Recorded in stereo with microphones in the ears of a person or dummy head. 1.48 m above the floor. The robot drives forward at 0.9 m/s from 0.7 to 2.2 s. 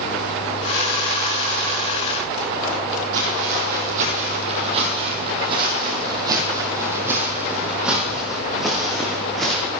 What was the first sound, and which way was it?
Footsteps, 55° right (ahead or behind).